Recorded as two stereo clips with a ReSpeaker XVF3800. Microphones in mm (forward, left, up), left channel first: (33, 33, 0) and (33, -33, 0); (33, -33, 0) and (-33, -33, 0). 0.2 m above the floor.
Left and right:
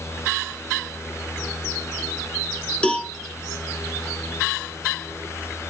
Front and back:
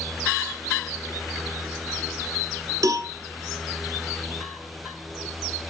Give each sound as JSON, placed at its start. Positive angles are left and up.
{"t": 2.8, "sound": "a cowbell", "azimuth_deg": 160, "distance_m": 1.2}